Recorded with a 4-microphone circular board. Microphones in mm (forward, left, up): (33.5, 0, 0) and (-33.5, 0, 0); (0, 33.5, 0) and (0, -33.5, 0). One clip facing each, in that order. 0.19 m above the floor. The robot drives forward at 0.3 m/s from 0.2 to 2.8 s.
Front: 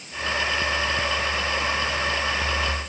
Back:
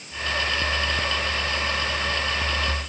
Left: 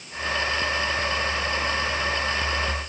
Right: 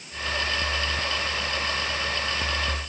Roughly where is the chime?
I don't hear a chime.